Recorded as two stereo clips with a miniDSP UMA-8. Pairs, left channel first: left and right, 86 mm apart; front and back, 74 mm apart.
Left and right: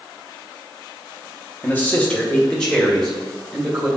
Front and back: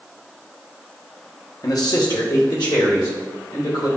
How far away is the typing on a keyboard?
I don't hear typing on a keyboard.